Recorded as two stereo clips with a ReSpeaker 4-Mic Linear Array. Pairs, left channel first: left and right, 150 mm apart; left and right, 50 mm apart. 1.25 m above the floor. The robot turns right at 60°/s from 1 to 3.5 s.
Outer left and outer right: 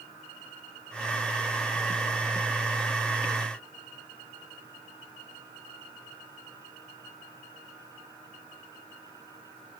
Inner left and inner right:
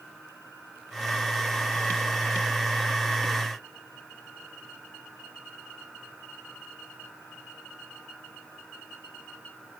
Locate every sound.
Only background noise.